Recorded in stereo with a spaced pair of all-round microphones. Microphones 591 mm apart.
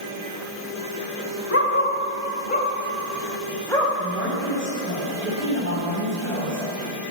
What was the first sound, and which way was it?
A dog barking, 20° left (ahead or behind).